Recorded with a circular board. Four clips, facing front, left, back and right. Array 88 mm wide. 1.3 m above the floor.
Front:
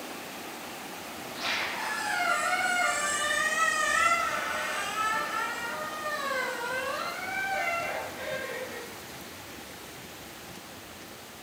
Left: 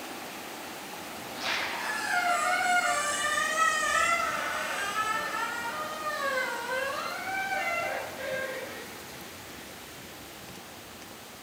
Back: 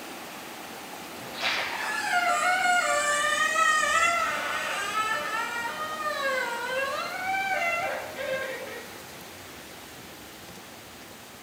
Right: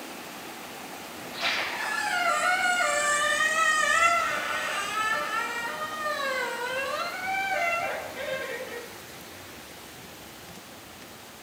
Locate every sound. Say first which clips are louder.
1.2 s a squeak: right 3 dB, back 2 dB; 145° right, 6 m